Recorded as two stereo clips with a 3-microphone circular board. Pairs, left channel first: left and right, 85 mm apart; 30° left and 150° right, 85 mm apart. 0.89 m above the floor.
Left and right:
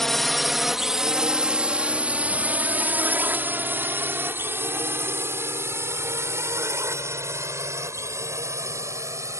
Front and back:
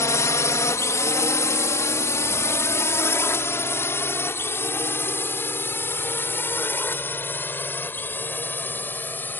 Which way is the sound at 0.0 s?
5° left.